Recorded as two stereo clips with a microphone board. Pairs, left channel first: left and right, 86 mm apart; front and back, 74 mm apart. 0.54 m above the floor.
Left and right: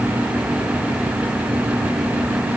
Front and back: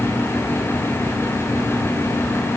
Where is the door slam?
I don't hear a door slam.